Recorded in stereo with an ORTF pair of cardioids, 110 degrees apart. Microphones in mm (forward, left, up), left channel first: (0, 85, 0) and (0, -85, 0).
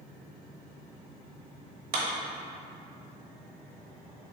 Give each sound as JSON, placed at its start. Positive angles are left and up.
{"t": 1.9, "sound": "a clap", "azimuth_deg": -65, "distance_m": 0.9}